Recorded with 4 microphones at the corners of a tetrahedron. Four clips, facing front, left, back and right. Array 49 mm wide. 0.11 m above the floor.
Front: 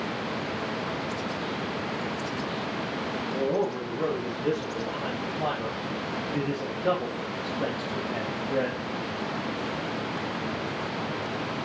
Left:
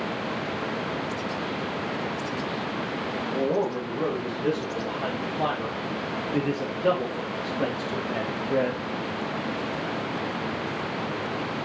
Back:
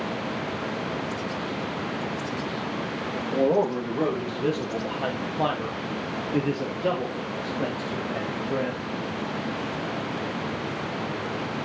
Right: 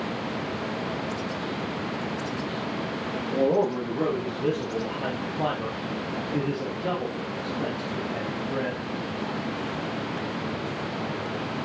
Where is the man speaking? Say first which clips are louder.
Right 3 dB, back 6 dB; 160° right, 3.5 m; by 8.8 s 95° left, 2.5 m.